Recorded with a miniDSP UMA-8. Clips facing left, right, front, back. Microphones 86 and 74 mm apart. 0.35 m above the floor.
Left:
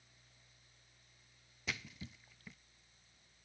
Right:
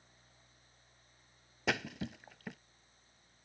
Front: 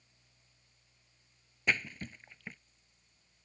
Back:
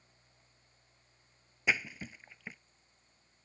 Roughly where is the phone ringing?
I don't hear a phone ringing.